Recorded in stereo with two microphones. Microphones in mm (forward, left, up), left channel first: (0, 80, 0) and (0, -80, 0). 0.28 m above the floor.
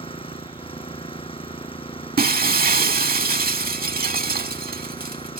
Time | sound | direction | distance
0.0 | an engine running | 35° left (ahead or behind) | ?
2.2 | breaking glass | 70° right (ahead or behind) | ?